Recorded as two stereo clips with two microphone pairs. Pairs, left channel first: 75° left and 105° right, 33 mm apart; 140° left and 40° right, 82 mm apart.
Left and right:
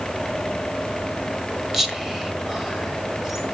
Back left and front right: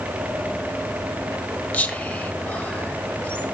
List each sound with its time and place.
1.7 s whispering: 170° right, 1.2 m